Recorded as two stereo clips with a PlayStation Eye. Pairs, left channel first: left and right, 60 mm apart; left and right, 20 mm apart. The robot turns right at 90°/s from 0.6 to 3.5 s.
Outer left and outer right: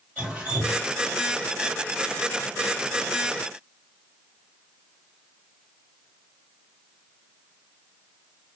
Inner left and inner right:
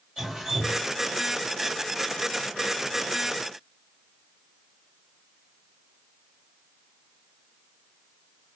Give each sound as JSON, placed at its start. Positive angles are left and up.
{"t": 0.2, "sound": "dripping", "side_deg": -20, "distance_m": 1.9}